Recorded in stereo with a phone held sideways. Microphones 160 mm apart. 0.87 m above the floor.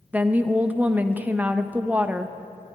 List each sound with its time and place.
0.1 s a woman speaking: 10° right (ahead or behind), 0.6 m